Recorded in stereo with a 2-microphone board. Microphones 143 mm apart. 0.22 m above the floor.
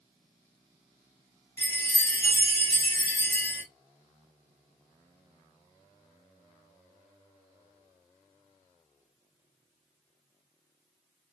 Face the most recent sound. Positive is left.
turn(degrees=15)  # may be behind; listen again after turning